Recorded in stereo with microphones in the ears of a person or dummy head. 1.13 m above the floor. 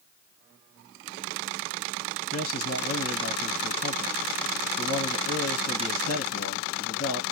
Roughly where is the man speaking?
Left.